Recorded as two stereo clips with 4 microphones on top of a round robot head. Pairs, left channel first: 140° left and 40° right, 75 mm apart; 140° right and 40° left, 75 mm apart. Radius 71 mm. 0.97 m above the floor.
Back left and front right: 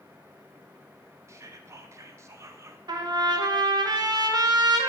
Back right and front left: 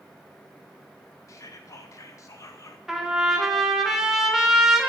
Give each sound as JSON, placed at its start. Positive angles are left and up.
{"t": 1.3, "sound": "whispering", "azimuth_deg": -90, "distance_m": 0.7}
{"t": 2.9, "sound": "a trumpet", "azimuth_deg": -40, "distance_m": 0.9}